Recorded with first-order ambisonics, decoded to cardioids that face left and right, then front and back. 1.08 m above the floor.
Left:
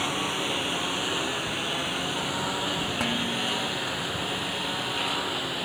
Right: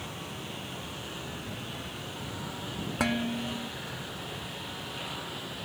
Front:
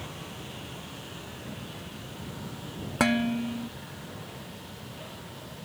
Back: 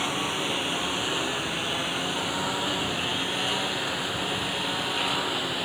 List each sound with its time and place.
0.0 s a lawn mower: 140° left; by 5.7 s 150° left
3.0 s dishes clattering: 10° right